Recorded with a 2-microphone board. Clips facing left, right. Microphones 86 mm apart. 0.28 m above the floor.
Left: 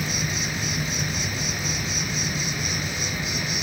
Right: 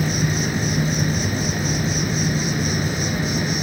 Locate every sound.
0.0 s an insect: 40° right (ahead or behind), 0.9 m